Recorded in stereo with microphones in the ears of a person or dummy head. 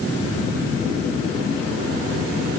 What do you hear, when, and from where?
Only background noise.